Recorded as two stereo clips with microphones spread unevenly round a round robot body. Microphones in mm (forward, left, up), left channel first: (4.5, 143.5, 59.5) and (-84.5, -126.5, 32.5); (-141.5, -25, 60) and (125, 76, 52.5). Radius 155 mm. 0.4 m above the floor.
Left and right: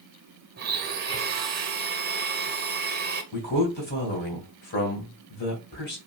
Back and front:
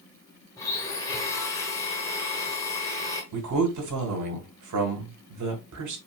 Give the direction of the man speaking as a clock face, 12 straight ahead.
12 o'clock.